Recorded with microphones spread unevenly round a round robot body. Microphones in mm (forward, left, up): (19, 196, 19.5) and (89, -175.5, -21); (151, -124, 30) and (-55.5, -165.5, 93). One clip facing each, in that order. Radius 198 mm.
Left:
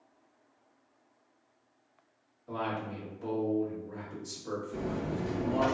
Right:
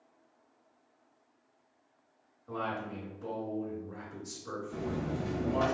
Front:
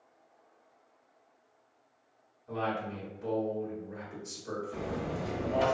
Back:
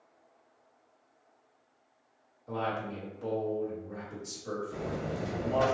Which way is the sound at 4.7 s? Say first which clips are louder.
Right 1 dB, even; 120° right.